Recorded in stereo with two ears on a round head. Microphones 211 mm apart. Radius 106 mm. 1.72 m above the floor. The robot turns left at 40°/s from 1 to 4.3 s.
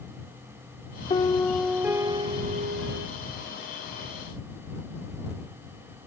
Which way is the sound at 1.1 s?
20° left.